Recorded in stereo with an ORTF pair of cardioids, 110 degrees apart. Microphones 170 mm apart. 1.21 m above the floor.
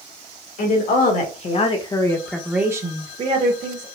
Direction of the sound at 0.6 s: 65° left.